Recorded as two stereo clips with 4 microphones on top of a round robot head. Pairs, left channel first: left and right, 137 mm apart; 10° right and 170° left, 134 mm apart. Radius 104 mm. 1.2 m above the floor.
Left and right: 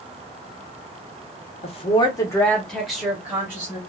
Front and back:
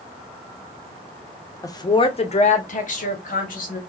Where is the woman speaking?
55° left, 0.8 m; by 3.8 s 15° right, 1.4 m.